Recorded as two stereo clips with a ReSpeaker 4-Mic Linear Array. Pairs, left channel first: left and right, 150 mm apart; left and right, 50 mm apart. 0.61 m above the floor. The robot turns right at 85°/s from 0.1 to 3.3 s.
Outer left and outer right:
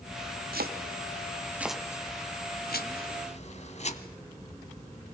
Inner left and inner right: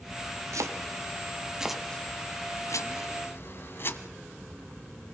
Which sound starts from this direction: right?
Chopping, at 0.5 s.